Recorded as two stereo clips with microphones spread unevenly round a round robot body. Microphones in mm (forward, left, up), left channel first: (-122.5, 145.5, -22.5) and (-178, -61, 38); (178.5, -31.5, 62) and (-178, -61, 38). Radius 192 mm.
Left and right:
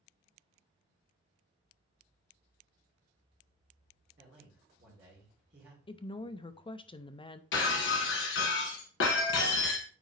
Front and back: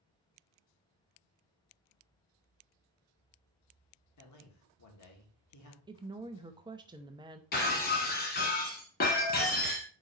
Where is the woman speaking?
115° left, 0.6 m.